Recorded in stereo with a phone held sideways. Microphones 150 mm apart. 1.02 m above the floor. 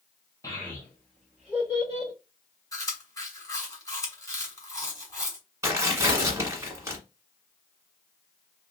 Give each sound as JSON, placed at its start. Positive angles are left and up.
{"t": 0.4, "sound": "a child speaking", "side_deg": 20, "distance_m": 1.4}
{"t": 2.7, "sound": "chewing", "side_deg": 20, "distance_m": 1.3}
{"t": 5.6, "sound": "tearing paper", "side_deg": -20, "distance_m": 1.6}